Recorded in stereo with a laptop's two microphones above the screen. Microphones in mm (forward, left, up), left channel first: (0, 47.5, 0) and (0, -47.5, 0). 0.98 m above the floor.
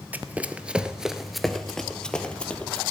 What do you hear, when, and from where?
0.1 s running footsteps: 15° right (ahead or behind), 1.1 m; by 2.8 s 15° left (ahead or behind), 1.8 m